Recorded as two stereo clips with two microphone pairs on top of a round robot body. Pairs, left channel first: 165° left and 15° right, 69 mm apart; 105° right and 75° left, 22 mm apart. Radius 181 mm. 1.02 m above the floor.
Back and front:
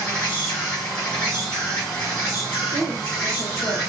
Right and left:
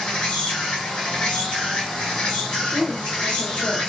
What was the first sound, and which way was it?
An insect, 125° right.